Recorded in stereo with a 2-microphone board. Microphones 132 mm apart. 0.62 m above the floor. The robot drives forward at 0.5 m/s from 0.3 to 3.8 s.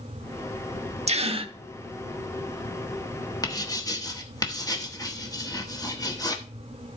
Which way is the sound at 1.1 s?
55° right (ahead or behind).